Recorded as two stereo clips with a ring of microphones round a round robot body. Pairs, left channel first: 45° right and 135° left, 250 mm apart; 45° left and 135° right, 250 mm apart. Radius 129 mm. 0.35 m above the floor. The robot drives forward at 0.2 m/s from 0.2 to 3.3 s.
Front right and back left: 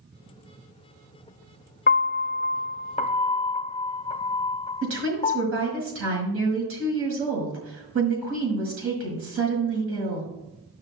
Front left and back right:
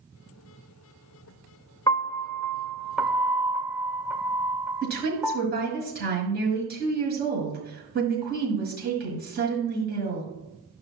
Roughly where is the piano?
Ahead right.